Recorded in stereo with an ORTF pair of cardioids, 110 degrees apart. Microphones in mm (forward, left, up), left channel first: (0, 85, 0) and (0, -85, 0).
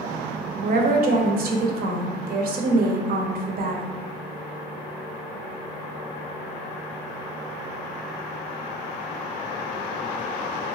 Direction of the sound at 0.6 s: 55° right.